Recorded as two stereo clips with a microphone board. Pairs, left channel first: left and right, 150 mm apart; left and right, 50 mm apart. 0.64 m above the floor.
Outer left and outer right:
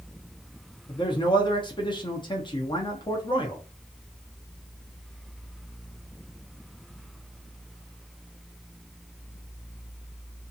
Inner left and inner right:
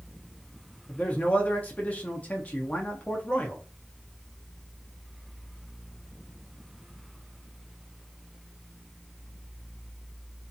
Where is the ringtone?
I don't hear a ringtone.